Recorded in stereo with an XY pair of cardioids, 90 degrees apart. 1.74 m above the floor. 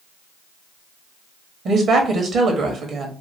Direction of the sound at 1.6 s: 65° right.